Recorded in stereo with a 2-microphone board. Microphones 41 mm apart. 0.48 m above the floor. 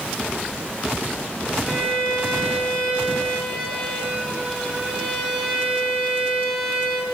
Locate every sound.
1.6 s a violin: 5° right (ahead or behind), 4.5 m